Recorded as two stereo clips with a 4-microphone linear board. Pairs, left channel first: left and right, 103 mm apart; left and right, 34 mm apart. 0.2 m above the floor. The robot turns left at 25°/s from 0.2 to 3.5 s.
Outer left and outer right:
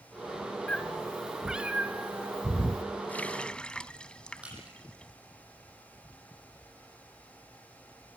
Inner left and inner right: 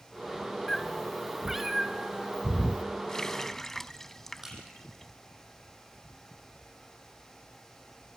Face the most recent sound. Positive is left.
turn(degrees=-10)  # may be behind; listen again after turning